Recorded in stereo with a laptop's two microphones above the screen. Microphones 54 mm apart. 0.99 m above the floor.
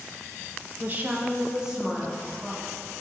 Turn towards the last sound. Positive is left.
turn(degrees=0)  # may be behind; listen again after turning